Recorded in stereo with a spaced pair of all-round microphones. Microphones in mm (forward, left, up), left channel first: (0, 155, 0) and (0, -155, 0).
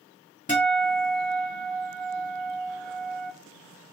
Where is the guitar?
25° left (ahead or behind), 2.5 m.